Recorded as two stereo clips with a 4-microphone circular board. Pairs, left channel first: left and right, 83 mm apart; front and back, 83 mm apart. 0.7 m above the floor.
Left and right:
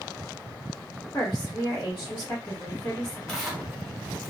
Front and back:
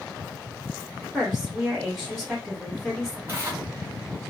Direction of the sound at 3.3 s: 170° left.